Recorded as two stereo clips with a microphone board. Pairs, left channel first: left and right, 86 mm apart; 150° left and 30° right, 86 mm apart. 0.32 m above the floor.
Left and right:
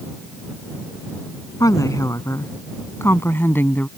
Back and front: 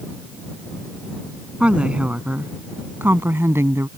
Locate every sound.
1.6 s a woman speaking: 45° left; by 3.9 s 25° left